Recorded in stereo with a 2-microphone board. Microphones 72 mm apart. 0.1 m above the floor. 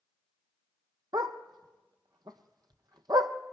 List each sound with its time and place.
1.1 s a dog barking: 70° right (ahead or behind), 1.6 m